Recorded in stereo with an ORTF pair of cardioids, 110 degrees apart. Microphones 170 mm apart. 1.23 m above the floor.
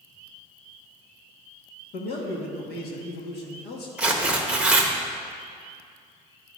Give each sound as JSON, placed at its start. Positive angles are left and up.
{"t": 1.9, "sound": "a man speaking", "azimuth_deg": 70, "distance_m": 1.3}
{"t": 4.0, "sound": "tearing paper", "azimuth_deg": -5, "distance_m": 0.9}